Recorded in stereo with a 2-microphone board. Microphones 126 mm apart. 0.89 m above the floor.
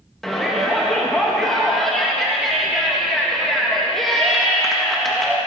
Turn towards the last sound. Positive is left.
turn(degrees=0)  # may be behind; listen again after turning